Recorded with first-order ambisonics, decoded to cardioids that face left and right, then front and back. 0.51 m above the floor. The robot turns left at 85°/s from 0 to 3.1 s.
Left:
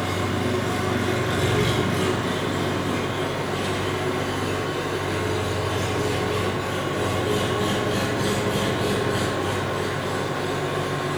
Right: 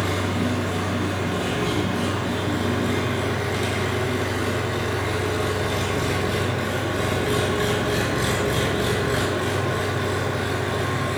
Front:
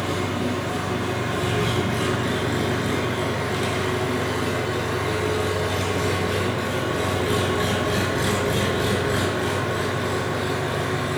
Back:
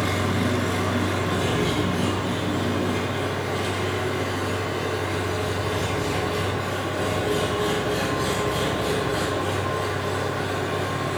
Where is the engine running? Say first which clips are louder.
Even, back 1 dB; 145° right, 4.5 m; by 11.2 s 50° right, 4.5 m.